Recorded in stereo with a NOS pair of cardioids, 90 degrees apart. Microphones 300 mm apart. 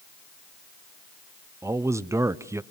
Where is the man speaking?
10° right, 0.8 m.